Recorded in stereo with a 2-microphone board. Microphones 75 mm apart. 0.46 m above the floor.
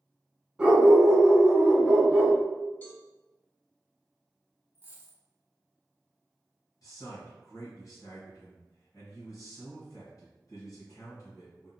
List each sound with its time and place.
0.6 s a dog barking: 15° right (ahead or behind), 1.4 m
2.8 s a cowbell: 25° left (ahead or behind), 0.8 m
4.8 s a dropped coin: 25° right (ahead or behind), 1.5 m
6.8 s a man speaking: 55° left (ahead or behind), 2.0 m